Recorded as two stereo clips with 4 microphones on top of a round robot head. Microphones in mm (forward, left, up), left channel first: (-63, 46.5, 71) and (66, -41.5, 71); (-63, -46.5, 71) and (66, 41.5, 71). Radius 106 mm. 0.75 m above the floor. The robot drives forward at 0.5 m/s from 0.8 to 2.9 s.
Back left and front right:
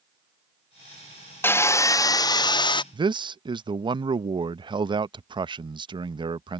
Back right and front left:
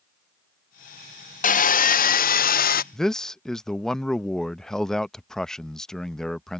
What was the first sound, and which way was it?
Sawing, 140° right.